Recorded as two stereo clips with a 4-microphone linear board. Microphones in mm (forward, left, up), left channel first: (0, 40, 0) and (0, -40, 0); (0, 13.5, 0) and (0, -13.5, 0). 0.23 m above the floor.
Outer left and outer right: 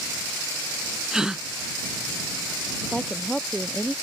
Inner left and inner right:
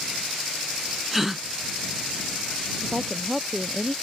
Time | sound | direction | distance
1.1 | a gasp | 10° right (ahead or behind) | ?
2.8 | a woman speaking | 5° left (ahead or behind) | ?